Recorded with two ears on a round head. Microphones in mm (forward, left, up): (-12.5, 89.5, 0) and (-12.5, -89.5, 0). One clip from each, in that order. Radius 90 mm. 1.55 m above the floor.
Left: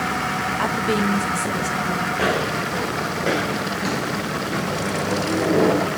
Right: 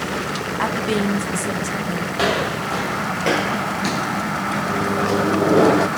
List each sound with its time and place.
0.6 s a woman speaking: 10° right (ahead or behind), 1.1 m
2.1 s footsteps: 55° right (ahead or behind), 3.5 m; by 4.8 s 20° left (ahead or behind), 1.6 m
4.7 s a microwave: 80° right, 0.8 m